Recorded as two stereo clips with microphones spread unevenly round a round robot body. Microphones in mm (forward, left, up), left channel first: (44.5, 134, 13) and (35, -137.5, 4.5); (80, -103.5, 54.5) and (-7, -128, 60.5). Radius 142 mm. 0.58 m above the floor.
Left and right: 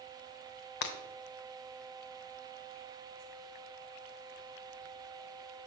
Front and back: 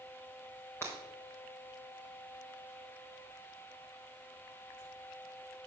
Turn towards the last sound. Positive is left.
turn(degrees=90)